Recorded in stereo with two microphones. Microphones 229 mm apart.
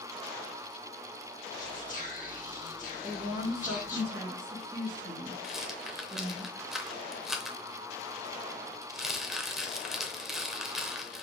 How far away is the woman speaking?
About 3.5 m.